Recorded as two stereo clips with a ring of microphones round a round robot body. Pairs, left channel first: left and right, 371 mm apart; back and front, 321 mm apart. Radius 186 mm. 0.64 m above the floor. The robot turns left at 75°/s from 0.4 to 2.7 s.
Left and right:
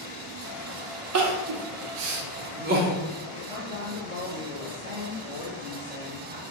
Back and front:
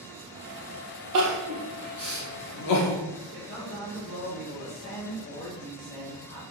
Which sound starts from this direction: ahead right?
Crying, at 1.1 s.